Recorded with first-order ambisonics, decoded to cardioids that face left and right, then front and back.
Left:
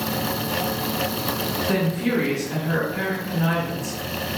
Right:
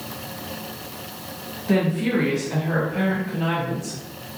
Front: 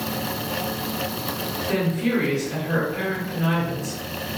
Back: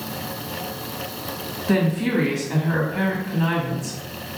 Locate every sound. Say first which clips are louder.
1.7 s a woman speaking: right 4 dB, back 3 dB; 170° right, 1.7 m